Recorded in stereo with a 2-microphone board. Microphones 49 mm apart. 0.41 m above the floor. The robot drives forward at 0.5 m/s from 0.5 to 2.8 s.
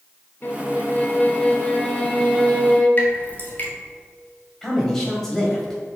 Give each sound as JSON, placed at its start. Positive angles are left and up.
{"t": 0.4, "sound": "a violin", "side_deg": 40, "distance_m": 0.6}
{"t": 3.0, "sound": "dripping", "side_deg": 40, "distance_m": 1.6}
{"t": 4.6, "sound": "a man speaking", "side_deg": 5, "distance_m": 2.0}